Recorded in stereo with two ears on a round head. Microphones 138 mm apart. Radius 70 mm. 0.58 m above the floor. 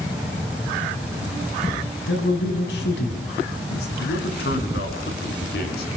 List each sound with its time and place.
2.1 s a man speaking: 75° left (ahead or behind), 5.5 m
4.0 s a man speaking: 80° left, 6 m